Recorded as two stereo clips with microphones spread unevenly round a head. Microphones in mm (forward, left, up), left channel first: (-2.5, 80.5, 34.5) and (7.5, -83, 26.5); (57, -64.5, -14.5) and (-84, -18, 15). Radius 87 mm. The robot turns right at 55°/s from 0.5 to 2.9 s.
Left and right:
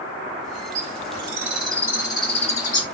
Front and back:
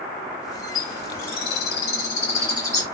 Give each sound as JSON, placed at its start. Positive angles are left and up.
{"t": 0.8, "sound": "a bird", "azimuth_deg": -45, "distance_m": 1.4}